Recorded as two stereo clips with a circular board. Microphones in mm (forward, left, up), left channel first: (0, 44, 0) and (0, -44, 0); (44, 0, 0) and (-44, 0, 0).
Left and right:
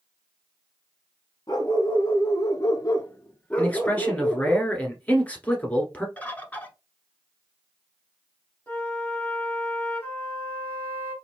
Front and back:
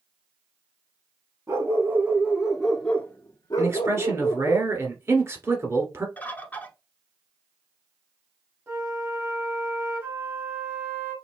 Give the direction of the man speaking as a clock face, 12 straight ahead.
7 o'clock.